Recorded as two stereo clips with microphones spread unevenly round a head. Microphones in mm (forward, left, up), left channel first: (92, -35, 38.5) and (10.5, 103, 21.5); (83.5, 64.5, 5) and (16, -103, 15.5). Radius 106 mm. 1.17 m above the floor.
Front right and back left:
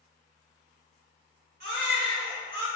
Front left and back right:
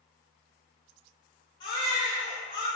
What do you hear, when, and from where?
1.6 s a baby crying: 135° left, 1.1 m